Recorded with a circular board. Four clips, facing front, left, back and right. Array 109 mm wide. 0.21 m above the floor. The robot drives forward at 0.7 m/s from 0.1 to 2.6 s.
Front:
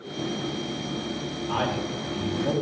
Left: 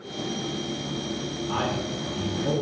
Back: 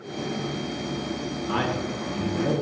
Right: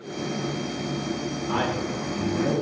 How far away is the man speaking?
About 3.5 m.